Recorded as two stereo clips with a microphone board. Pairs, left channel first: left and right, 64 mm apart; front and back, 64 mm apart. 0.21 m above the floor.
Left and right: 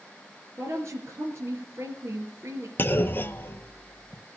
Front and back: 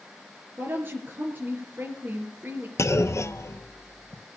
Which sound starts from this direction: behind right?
A woman speaking, at 0.6 s.